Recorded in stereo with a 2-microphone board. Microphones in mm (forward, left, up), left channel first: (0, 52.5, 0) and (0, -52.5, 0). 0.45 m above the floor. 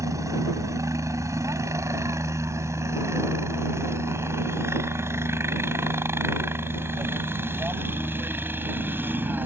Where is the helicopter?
30° right (ahead or behind); by 9.5 s 20° right (ahead or behind).